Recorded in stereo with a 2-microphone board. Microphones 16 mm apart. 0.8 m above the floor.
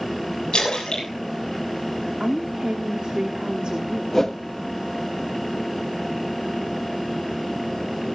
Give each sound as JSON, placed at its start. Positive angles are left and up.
{"t": 0.5, "sound": "a splash", "side_deg": 80, "distance_m": 7.5}
{"t": 2.2, "sound": "a woman speaking", "side_deg": -70, "distance_m": 1.4}
{"t": 4.1, "sound": "a whoosh", "side_deg": 30, "distance_m": 1.2}